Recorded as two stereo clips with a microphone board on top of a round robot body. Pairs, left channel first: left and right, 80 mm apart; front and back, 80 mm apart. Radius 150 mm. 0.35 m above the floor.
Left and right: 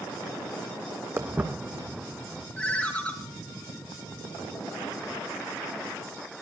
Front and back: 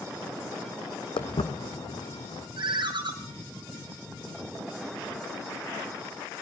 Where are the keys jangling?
I don't hear keys jangling.